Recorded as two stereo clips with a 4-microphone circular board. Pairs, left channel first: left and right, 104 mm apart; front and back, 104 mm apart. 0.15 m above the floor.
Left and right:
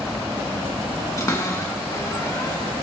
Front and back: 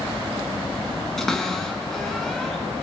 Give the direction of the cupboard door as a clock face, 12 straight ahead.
9 o'clock.